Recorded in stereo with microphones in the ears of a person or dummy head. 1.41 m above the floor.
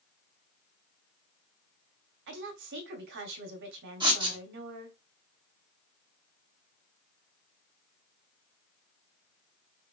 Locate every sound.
2.3 s a woman speaking: 60° right (ahead or behind), 0.8 m
4.0 s writing: 20° right (ahead or behind), 0.7 m